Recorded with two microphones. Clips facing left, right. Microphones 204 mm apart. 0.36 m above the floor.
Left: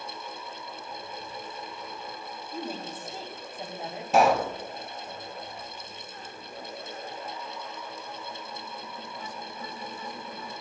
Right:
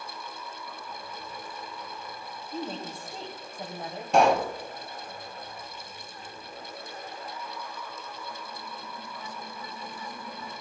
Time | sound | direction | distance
2.5 | a woman speaking | 5° left (ahead or behind) | 1.9 m
4.1 | a pop | centre (ahead or behind) | 0.9 m